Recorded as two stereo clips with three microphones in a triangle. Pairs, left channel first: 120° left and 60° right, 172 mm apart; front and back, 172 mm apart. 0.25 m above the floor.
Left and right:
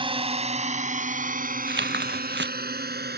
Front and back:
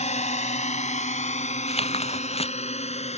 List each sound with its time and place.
0.0 s a drone: 20° right; by 3.2 s 50° right
1.7 s tearing paper: 55° right